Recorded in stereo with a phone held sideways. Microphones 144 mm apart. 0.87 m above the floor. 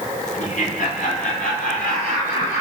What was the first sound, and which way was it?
Laughter, 65° left (ahead or behind).